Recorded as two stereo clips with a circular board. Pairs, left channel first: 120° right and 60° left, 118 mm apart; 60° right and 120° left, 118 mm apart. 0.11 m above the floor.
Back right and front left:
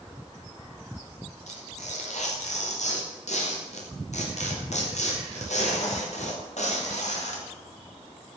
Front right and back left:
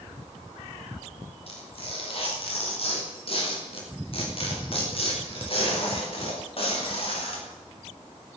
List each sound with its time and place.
1.5 s tearing paper: 100° right, 7.5 m